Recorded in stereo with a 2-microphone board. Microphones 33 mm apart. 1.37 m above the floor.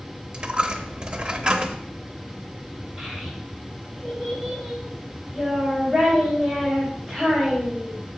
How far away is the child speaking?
About 4.5 m.